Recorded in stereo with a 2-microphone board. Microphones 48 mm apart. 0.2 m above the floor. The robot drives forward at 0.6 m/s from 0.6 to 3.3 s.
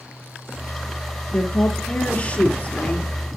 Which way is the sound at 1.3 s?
30° left (ahead or behind).